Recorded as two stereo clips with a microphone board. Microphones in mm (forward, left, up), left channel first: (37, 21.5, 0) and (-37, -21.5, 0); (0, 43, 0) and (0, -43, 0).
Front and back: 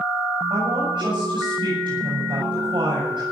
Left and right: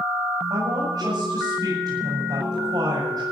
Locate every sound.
0.5 s a woman speaking: 120° right, 6.5 m